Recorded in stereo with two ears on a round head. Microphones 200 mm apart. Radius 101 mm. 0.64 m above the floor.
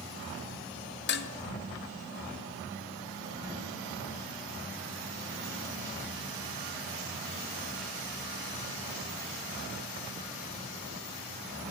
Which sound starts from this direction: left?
Dishes clattering, at 1.1 s.